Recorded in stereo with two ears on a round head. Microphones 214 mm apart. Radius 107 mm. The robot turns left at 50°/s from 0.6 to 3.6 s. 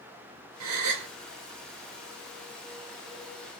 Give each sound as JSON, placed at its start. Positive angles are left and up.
{"t": 0.6, "sound": "a gasp", "side_deg": -70, "distance_m": 1.1}